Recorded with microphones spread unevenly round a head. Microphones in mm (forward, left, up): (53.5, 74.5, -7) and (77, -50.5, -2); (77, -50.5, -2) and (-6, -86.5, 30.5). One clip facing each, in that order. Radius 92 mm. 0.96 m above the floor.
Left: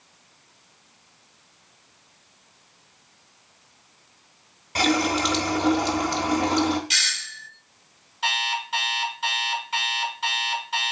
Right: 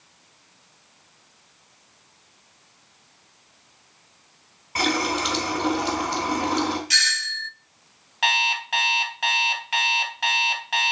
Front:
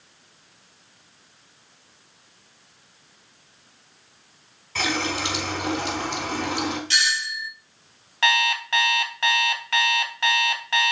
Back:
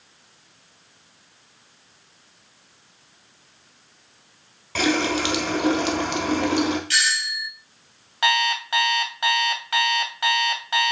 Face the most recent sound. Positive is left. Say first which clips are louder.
# right 3 dB, back 1 dB
turn(degrees=-85)